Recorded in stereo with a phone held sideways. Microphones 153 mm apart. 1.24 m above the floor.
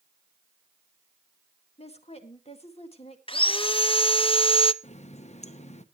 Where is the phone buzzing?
No phone buzzing in this recording.